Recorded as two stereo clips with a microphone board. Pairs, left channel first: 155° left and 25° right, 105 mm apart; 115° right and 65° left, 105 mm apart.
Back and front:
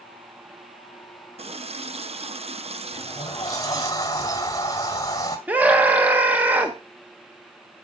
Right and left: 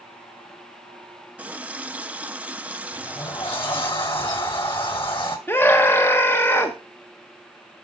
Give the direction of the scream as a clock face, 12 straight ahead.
3 o'clock.